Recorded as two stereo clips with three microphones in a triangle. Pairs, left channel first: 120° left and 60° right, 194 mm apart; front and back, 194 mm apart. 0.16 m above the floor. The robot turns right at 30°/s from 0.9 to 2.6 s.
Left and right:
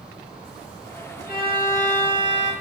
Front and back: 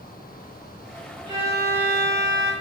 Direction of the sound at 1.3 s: 120° left.